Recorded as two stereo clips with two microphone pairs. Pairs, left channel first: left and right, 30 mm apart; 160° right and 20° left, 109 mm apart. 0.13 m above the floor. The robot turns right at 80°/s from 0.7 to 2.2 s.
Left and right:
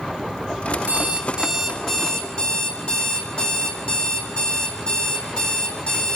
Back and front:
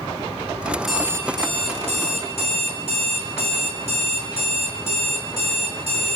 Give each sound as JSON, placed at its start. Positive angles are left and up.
{"t": 0.9, "sound": "an alarm clock", "azimuth_deg": -70, "distance_m": 3.5}